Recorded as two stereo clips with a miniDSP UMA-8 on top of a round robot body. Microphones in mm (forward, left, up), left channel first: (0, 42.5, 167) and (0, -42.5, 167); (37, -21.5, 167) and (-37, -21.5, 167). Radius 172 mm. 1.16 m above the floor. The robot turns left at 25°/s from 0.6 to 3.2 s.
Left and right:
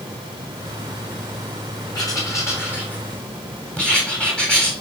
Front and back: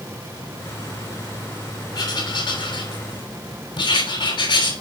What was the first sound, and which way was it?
Writing, 40° left.